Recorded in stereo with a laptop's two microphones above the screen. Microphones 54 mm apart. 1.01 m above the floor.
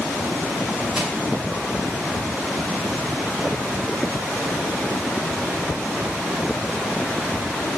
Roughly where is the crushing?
Centre.